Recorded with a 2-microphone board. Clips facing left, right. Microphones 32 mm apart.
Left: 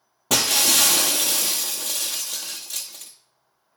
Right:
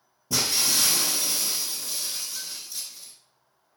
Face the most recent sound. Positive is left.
turn(degrees=85)